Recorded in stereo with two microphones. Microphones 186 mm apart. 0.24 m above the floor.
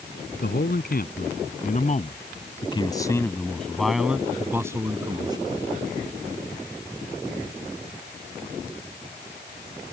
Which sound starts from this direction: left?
A man speaking, at 0.4 s.